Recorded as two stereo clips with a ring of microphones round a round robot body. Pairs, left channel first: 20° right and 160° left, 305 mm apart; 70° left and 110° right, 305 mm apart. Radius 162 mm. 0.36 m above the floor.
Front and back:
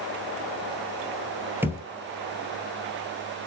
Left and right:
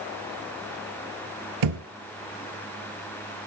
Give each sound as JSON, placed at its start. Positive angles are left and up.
{"t": 1.6, "sound": "a thud", "azimuth_deg": -120, "distance_m": 2.0}